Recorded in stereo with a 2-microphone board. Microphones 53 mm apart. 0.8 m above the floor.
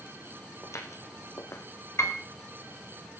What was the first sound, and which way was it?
Footsteps, 70° left (ahead or behind).